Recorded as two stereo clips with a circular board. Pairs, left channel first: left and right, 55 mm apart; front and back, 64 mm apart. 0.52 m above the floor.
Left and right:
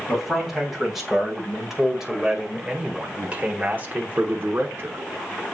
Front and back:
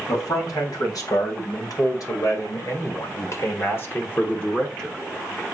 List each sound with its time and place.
0.1 s a man speaking: straight ahead, 3 m; by 5.0 s 85° right, 1.1 m